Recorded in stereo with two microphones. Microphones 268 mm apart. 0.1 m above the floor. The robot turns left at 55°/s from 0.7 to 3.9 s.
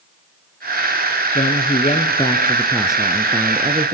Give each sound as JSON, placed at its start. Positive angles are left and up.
{"t": 1.4, "sound": "a man speaking", "side_deg": 30, "distance_m": 1.5}